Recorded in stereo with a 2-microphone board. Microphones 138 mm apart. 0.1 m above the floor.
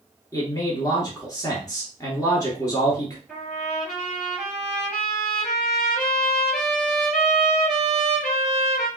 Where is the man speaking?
25° left (ahead or behind), 1.3 m.